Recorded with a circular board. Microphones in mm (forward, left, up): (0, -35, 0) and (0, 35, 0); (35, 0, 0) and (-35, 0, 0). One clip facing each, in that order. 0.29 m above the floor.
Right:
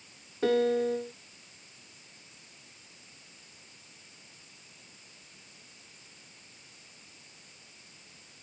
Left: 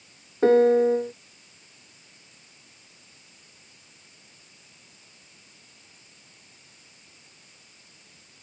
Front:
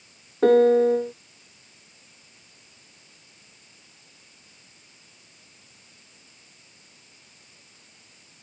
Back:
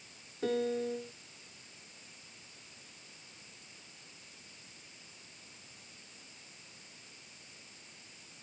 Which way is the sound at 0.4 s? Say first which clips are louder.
Left 9 dB, front 17 dB; 35° left.